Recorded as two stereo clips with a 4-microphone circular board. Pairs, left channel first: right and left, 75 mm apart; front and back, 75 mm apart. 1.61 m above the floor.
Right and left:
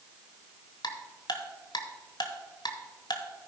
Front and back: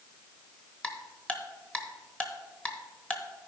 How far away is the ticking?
About 1.2 m.